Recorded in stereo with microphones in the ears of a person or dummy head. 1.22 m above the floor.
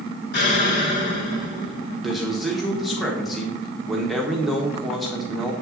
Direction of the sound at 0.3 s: 65° left (ahead or behind).